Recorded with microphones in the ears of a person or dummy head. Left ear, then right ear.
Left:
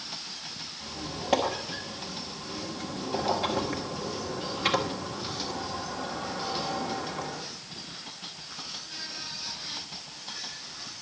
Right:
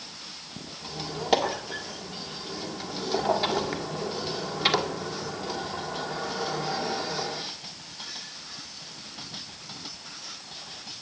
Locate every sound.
0.8 s a squeak: 30° right (ahead or behind), 1.6 m